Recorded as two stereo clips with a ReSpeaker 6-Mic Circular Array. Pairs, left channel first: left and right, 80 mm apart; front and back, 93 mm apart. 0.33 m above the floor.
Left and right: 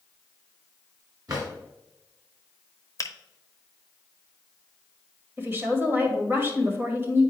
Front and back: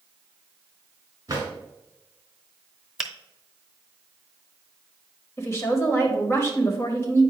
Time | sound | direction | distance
1.3 | a drawer | 130° right | 2.5 m
3.0 | a finger snap | 95° left | 0.8 m
5.4 | a woman speaking | 45° right | 1.5 m